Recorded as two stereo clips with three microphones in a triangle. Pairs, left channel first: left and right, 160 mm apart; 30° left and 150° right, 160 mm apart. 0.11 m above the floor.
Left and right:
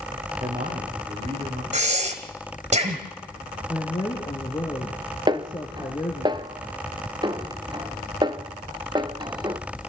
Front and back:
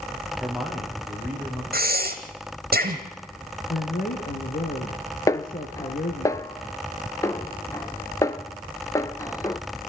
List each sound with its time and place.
0.4 s a man speaking: 55° right, 4.5 m; by 1.6 s 60° right, 6 m
1.7 s breathing: 135° right, 2.5 m
3.7 s a woman speaking: 30° left, 2.5 m
5.3 s a snare drum: 35° right, 0.6 m